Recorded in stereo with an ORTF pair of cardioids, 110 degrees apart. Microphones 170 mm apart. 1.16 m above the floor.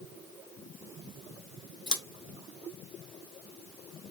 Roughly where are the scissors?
Ahead left.